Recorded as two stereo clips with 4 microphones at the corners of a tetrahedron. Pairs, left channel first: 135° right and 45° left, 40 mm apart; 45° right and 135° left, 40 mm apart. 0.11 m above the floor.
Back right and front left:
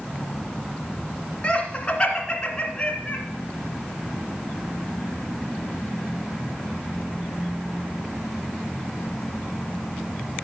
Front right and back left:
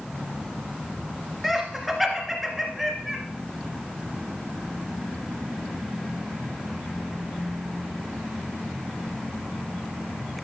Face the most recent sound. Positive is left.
turn(degrees=-130)